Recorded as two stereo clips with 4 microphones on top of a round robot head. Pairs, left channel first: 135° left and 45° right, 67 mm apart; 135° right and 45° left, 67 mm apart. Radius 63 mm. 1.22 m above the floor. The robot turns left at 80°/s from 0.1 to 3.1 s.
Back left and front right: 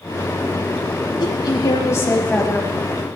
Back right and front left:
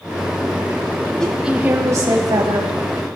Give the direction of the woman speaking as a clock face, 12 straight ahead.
7 o'clock.